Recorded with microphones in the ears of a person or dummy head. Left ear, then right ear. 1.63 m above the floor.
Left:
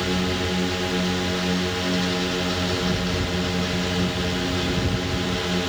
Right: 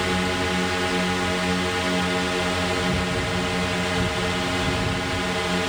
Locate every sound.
0.0 s a drone: 45° right (ahead or behind)